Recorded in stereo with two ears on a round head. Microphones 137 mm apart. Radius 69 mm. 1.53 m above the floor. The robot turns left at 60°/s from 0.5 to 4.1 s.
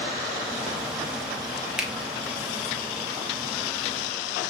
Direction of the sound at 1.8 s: 5° right (ahead or behind).